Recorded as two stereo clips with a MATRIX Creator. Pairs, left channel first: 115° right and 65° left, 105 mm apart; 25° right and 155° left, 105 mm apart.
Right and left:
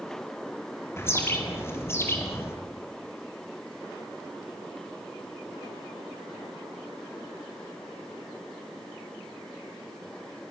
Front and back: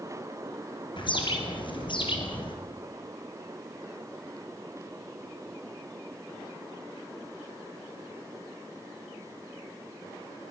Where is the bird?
50° right, 4 m.